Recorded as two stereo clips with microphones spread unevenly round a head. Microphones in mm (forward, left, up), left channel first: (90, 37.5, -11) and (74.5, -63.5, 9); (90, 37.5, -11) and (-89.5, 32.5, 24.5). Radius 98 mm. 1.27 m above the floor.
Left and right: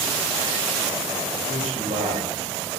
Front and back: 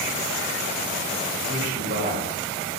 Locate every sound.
1.5 s a man speaking: 135° right, 7.5 m